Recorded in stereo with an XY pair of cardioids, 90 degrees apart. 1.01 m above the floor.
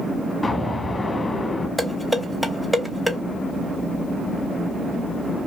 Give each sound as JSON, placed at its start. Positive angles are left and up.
{"t": 0.4, "sound": "an explosion", "azimuth_deg": 25, "distance_m": 1.4}
{"t": 1.8, "sound": "dishes clattering", "azimuth_deg": -5, "distance_m": 0.9}